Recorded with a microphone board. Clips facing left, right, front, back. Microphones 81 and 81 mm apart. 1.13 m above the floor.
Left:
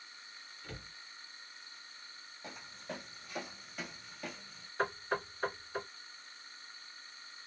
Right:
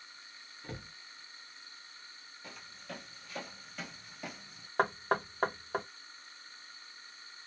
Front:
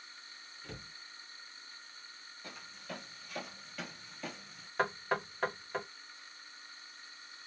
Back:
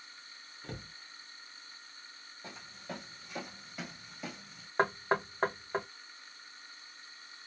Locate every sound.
0.6 s a cupboard door: 145° right, 0.8 m
2.4 s footsteps: 135° left, 1.4 m; by 4.7 s 100° right, 1.1 m
4.8 s knocking: 120° right, 0.8 m